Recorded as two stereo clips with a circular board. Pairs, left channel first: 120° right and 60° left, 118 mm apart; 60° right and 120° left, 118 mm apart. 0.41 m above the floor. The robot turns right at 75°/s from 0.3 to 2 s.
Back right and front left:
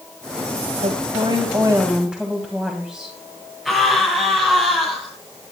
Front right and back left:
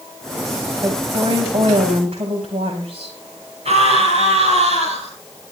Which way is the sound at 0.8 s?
55° left.